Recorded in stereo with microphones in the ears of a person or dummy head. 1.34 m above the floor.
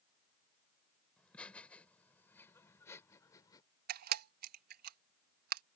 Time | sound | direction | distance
1.2 | laughter | 5° left (ahead or behind) | ?
3.9 | a camera shutter | 55° right (ahead or behind) | ?